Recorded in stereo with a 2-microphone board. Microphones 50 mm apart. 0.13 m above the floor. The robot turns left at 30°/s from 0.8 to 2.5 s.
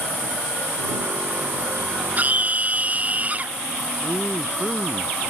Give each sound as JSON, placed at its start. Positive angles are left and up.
{"t": 2.2, "sound": "a scream", "side_deg": -35}
{"t": 4.0, "sound": "a man speaking", "side_deg": 0}